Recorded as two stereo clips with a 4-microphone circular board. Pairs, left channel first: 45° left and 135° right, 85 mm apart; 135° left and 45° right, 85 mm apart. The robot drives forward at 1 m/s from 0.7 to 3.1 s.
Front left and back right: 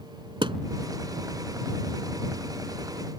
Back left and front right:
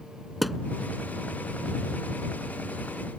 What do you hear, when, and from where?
0.4 s a thud: 135° right